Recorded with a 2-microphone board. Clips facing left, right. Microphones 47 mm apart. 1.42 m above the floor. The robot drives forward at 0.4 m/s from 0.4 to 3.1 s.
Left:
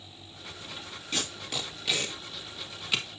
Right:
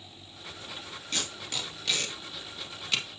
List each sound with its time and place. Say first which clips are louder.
1.1 s tape being pulled: left 1 dB; 5° left (ahead or behind), 2 m